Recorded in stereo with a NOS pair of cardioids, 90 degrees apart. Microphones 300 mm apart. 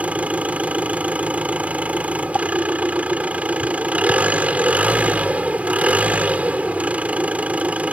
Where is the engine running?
5° right.